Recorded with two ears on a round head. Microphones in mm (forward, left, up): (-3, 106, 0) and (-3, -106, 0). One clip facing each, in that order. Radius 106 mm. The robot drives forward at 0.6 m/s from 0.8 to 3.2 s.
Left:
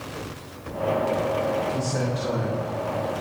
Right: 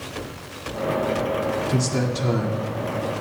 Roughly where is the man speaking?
Right.